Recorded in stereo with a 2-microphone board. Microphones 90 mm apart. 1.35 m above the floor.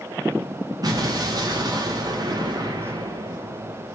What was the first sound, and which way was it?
An explosion, 45° right (ahead or behind).